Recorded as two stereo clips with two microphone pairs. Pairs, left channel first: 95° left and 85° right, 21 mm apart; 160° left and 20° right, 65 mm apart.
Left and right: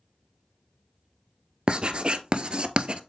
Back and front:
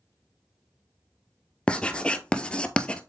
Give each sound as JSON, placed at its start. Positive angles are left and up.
{"t": 1.7, "sound": "writing", "azimuth_deg": -125, "distance_m": 0.6}